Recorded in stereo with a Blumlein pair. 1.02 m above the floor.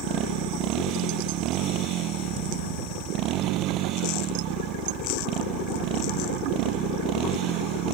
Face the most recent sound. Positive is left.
turn(degrees=-35)